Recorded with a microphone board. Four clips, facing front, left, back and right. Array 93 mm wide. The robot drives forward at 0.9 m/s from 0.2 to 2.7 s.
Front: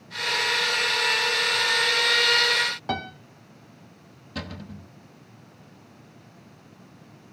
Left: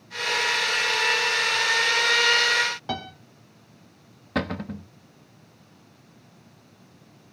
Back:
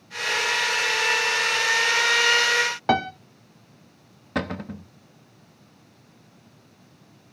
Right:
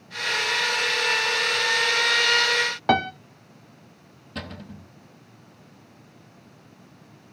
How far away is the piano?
About 0.7 m.